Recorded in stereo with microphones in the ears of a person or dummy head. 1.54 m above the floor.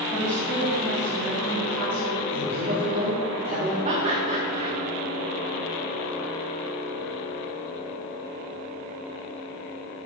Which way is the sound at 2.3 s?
30° right (ahead or behind).